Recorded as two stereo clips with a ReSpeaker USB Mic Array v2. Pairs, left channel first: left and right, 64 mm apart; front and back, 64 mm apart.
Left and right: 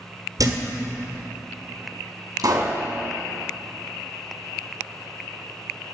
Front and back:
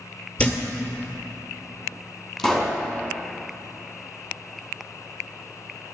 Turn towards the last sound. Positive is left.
turn(degrees=-75)